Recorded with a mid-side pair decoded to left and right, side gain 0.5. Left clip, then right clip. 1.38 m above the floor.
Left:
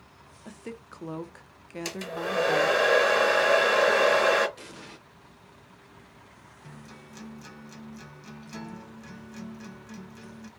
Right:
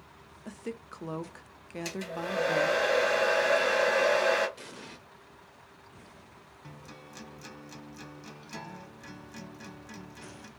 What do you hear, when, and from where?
0.5 s a woman speaking: straight ahead, 0.5 m
1.9 s a hair dryer: 40° left, 1.2 m
4.6 s an explosion: 5° left, 0.8 m
6.6 s a guitar: 10° right, 0.9 m